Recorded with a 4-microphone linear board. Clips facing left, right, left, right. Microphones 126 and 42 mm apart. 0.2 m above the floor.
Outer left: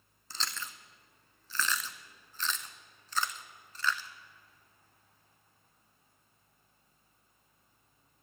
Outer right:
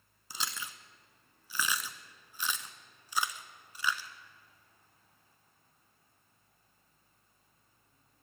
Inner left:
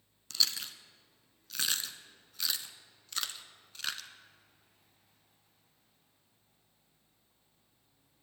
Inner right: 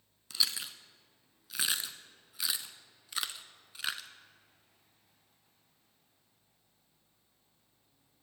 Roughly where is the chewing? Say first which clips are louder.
Even, inner left 1 dB; centre.